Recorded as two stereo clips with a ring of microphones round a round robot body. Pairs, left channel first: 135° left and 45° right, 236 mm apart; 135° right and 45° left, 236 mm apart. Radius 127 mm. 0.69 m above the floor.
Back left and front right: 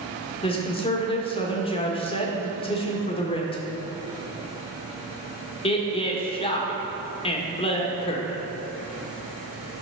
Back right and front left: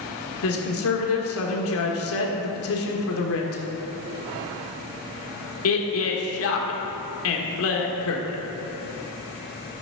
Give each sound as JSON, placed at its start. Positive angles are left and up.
{"t": 0.4, "sound": "a woman speaking", "azimuth_deg": -160, "distance_m": 1.8}